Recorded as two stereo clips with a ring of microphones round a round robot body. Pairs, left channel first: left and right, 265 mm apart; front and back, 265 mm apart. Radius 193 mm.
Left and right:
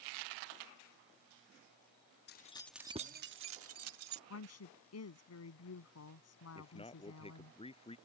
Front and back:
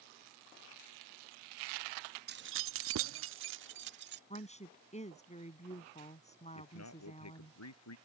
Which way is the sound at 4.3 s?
65° left.